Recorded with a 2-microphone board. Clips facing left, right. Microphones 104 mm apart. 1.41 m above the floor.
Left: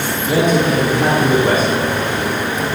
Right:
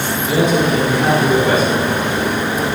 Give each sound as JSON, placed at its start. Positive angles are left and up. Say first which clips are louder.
{"t": 0.3, "sound": "a man speaking", "louder": "even", "side_deg": 55, "distance_m": 3.0}